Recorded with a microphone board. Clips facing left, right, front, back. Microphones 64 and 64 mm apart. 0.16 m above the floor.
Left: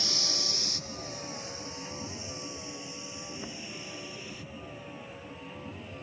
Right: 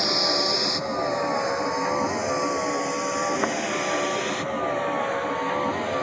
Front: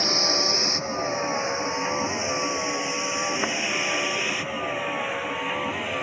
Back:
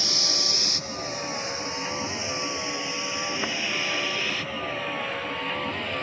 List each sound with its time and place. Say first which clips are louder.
0.0 s a vehicle: right 14 dB, front 7 dB; 55° right; by 6.0 s 80° right